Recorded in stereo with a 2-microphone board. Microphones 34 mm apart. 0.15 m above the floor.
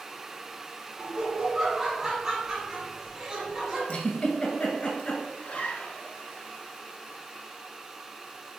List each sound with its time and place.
1.0 s laughter: 25° right (ahead or behind), 1.3 m
3.9 s a giggle: 40° left (ahead or behind), 0.8 m
5.4 s a zipper: 45° left (ahead or behind), 0.6 m